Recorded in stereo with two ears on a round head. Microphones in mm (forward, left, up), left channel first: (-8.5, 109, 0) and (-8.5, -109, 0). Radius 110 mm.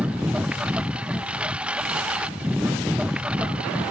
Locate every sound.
0.0 s a lawn mower: 5° right (ahead or behind)